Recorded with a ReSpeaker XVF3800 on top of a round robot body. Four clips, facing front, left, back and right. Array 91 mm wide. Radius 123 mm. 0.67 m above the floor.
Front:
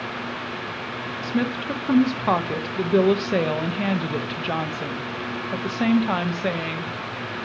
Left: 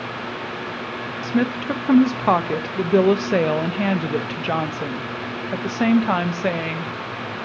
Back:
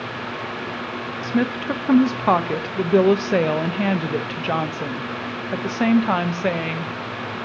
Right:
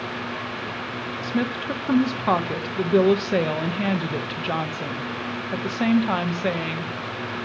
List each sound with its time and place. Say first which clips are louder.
1.2 s a woman speaking: left 4 dB, back 3 dB; 130° left, 0.5 m